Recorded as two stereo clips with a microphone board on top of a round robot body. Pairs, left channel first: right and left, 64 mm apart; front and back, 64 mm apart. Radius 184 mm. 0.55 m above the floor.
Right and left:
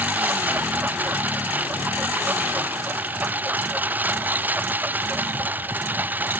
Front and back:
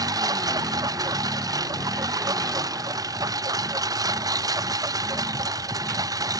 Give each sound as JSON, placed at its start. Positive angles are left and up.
{"t": 0.0, "sound": "a lawn mower", "azimuth_deg": 155}